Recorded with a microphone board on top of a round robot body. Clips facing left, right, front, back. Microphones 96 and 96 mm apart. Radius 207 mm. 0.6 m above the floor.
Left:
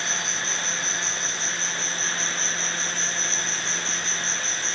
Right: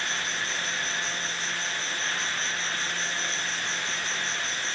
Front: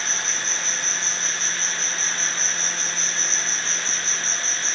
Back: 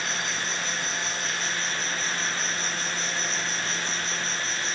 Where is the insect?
95° left.